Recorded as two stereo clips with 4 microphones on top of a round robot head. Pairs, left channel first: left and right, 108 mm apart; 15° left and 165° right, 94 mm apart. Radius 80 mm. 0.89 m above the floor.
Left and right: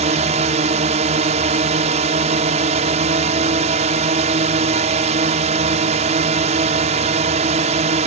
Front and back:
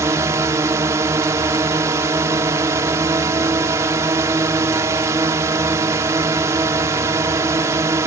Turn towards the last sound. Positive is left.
turn(degrees=-105)